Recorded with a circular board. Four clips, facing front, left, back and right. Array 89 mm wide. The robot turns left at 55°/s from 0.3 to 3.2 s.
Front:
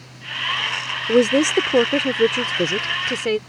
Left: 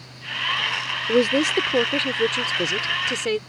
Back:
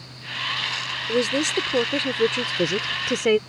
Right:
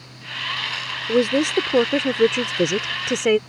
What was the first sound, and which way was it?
A woman speaking, 5° left.